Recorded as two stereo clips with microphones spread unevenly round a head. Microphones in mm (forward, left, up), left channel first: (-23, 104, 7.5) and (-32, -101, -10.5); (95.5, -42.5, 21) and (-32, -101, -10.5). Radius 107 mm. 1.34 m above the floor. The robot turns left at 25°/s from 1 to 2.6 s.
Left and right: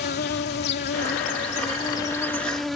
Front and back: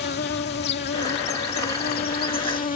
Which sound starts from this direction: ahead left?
An insect, at 0.0 s.